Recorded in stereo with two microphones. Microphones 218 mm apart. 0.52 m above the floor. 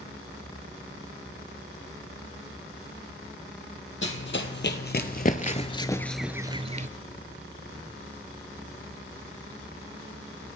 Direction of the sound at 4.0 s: 60° left (ahead or behind).